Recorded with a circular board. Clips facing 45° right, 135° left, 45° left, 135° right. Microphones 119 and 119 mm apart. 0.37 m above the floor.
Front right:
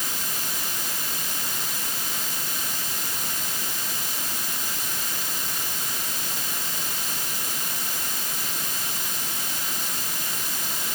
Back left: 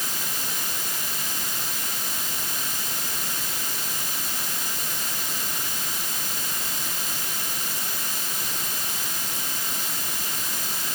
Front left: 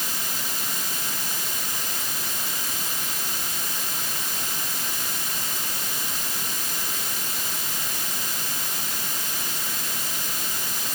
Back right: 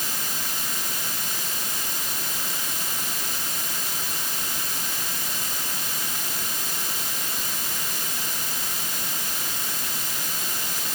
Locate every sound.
Only background noise.